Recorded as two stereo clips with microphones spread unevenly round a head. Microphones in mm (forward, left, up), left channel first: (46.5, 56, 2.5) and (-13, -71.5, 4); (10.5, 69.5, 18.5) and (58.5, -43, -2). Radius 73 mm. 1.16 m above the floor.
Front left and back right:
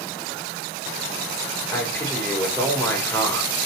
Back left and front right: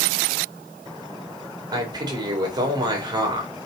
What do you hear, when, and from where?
1.7 s a man speaking: 10° right, 4 m